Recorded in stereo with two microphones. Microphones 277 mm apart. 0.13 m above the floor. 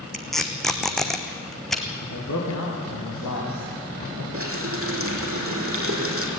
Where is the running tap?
50° right (ahead or behind), 4 m.